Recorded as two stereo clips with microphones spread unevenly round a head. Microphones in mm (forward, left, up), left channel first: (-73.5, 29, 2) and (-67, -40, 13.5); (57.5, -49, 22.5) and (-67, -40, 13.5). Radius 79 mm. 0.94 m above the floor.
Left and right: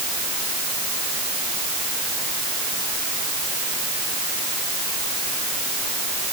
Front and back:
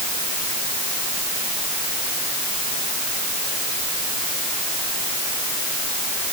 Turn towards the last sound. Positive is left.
No sound to turn to.